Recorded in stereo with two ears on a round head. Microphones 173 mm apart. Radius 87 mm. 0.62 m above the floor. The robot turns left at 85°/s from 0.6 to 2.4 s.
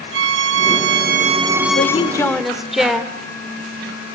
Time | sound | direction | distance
0.1 | a violin | 85° right | 1.0 m
1.8 | a woman speaking | 55° left | 2.0 m